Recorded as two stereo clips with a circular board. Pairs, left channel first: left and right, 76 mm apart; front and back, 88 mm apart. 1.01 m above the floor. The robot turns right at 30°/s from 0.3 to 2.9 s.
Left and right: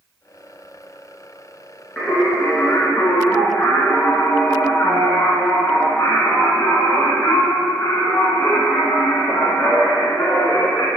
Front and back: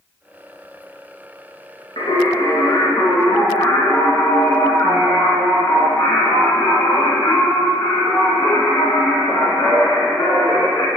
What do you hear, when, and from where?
2.0 s singing: 10° left, 1.6 m; by 10.9 s 40° left, 1.6 m